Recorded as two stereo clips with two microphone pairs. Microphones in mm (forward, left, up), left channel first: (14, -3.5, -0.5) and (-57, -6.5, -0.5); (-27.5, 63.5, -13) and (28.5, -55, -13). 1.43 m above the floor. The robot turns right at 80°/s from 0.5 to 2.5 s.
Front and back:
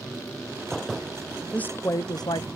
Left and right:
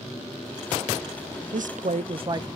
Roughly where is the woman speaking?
Right.